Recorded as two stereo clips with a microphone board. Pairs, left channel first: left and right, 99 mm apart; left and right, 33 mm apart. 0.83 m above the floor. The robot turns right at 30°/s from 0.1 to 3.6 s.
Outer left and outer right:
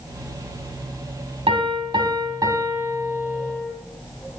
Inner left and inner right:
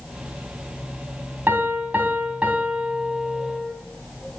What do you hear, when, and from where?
1.5 s a piano: 65° right, 2.5 m; by 3.7 s straight ahead, 2.5 m